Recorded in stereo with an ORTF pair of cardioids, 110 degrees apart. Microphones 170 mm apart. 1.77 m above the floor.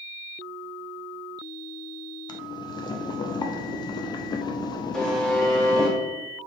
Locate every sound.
2.3 s boiling: 25° left, 0.5 m
4.9 s a buzzer: 5° left, 1.1 m